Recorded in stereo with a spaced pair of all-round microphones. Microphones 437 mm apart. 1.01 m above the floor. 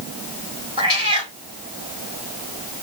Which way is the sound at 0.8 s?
10° right (ahead or behind).